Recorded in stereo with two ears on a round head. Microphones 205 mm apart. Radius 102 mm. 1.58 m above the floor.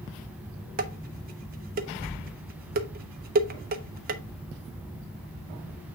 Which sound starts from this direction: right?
Dishes clattering, at 0.8 s.